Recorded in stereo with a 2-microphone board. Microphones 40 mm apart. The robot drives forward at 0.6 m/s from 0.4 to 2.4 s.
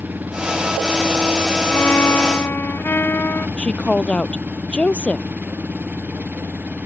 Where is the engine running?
50° right (ahead or behind); by 6.9 s 45° right (ahead or behind).